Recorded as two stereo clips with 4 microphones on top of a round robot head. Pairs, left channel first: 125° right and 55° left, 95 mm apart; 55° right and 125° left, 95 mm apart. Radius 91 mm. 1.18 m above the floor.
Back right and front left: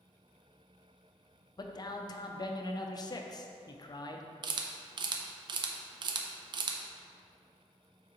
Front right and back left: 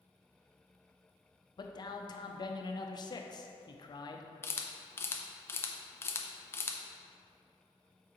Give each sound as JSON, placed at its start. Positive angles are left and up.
{"t": 1.6, "sound": "a man speaking", "azimuth_deg": -90, "distance_m": 0.6}
{"t": 4.4, "sound": "a camera shutter", "azimuth_deg": 15, "distance_m": 0.5}